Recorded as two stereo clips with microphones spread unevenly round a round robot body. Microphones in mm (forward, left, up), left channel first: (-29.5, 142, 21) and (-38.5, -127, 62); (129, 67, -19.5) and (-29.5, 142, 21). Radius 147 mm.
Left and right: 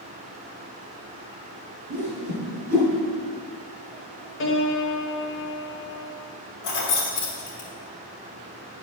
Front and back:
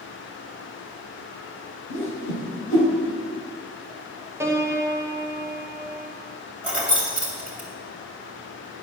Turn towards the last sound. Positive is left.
turn(degrees=70)